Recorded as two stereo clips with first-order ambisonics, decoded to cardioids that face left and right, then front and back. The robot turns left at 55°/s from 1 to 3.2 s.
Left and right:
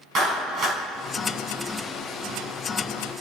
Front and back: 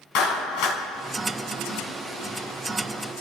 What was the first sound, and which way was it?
A clap, 30° right.